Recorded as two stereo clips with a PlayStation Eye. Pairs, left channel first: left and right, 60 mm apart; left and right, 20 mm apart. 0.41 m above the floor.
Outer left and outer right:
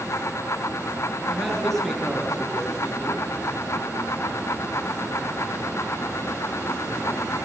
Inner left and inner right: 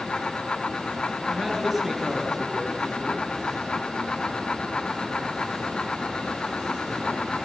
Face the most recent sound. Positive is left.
turn(degrees=0)  # may be behind; listen again after turning